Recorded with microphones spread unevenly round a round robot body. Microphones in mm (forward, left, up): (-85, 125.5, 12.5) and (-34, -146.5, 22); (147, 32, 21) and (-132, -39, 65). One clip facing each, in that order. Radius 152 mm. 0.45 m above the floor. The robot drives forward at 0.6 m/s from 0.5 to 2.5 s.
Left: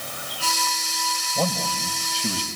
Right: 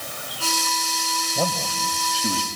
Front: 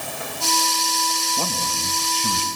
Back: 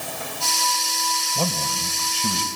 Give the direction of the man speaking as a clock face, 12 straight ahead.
5 o'clock.